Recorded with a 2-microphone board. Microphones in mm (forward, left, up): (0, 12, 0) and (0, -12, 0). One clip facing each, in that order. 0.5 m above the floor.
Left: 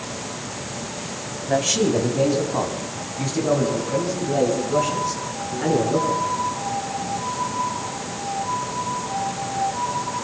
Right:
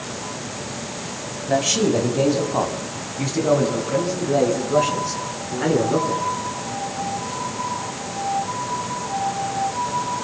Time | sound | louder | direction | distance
1.5 | a man speaking | right 1 dB | 10° right (ahead or behind) | 3.5 m